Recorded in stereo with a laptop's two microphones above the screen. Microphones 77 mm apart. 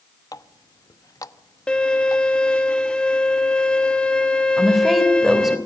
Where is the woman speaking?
5° right (ahead or behind), 3.5 m.